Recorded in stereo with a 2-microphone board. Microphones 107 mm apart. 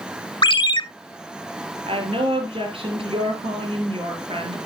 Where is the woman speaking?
60° right (ahead or behind), 4 m.